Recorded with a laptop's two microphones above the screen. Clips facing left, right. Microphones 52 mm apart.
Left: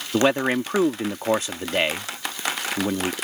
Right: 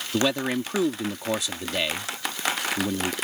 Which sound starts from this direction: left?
A man speaking, at 0.1 s.